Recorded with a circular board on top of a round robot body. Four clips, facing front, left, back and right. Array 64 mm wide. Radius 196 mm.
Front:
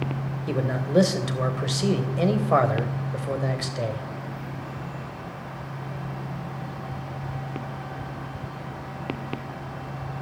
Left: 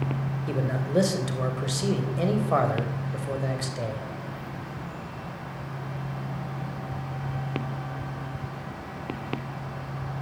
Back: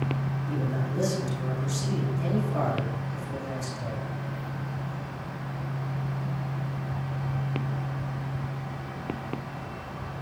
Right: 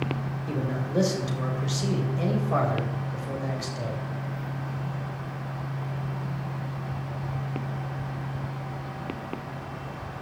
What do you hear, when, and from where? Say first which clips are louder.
0.5 s a man speaking: left 2 dB, front 8 dB; 15° left, 3 m